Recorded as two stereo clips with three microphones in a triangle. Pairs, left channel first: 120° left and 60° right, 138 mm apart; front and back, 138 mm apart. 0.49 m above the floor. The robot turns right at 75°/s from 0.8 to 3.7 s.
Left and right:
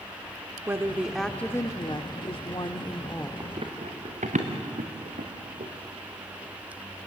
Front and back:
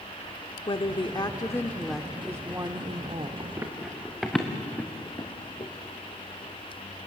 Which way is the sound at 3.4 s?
125° right.